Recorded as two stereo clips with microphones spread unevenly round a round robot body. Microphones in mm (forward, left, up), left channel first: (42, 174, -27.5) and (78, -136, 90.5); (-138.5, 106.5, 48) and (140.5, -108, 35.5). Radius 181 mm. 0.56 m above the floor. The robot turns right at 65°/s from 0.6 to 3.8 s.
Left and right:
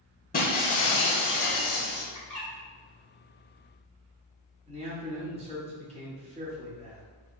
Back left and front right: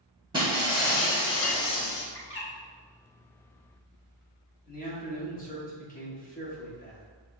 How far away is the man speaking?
About 1.2 m.